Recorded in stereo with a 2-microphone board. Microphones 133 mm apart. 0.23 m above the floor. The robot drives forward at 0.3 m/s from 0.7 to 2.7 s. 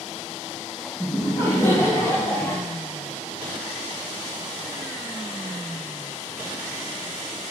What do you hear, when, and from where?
1.0 s laughter: 20° left (ahead or behind), 1.3 m